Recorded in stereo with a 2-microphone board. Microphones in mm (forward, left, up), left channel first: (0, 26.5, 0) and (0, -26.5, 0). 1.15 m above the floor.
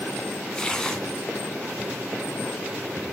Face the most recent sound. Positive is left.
turn(degrees=15)  # may be behind; listen again after turning